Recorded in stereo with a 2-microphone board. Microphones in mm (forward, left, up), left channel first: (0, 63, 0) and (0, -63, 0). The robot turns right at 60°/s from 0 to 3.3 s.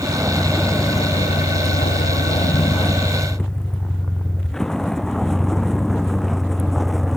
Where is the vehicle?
25° right (ahead or behind); by 7.2 s centre (ahead or behind).